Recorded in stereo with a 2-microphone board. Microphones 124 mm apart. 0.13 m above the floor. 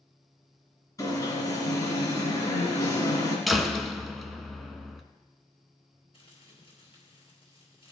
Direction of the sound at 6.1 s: 50° left (ahead or behind).